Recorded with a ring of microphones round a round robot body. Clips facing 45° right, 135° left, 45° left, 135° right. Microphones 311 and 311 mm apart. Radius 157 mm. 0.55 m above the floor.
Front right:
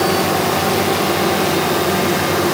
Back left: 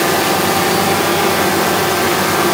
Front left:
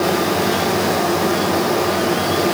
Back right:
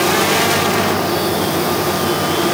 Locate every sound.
Only background noise.